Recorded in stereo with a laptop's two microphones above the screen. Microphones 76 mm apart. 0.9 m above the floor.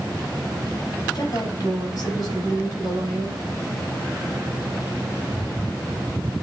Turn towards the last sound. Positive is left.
turn(degrees=50)  # may be behind; listen again after turning